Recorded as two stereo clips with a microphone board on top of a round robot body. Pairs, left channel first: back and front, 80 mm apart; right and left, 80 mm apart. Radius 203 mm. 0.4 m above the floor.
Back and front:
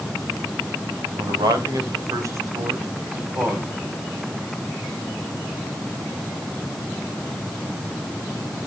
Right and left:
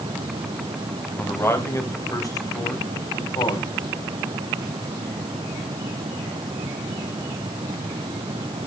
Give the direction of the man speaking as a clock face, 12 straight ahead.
1 o'clock.